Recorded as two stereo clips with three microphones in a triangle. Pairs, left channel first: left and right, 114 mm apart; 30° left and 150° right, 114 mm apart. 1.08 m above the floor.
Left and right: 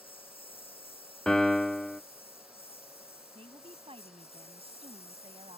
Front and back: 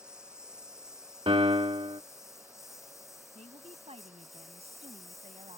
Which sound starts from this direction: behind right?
A woman speaking, at 3.4 s.